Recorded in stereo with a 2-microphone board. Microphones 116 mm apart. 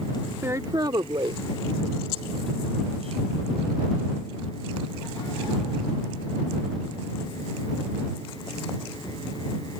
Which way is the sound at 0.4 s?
20° right (ahead or behind).